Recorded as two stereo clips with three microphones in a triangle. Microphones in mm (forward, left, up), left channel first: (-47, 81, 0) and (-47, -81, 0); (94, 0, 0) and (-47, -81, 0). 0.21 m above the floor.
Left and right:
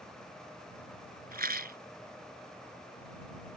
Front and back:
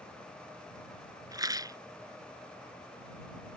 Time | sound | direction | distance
1.3 | a rattle | 85° right | ?